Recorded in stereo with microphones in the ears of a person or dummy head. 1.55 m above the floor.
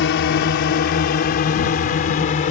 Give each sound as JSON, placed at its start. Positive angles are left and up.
{"t": 0.0, "sound": "a drone", "side_deg": 60}